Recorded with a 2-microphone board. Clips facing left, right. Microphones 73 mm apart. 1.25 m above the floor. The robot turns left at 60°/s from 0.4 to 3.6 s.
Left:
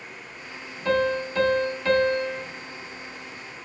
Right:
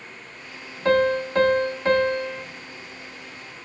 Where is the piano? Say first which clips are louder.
Right 4 dB; 80° right, 1.0 m; by 2.4 s 175° right, 1.0 m.